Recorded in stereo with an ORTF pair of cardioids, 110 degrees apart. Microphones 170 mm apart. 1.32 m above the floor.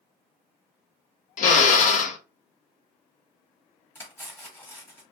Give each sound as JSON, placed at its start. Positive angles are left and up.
{"t": 1.4, "sound": "a drill", "azimuth_deg": 55, "distance_m": 0.6}
{"t": 4.0, "sound": "cutlery clinking", "azimuth_deg": 15, "distance_m": 1.4}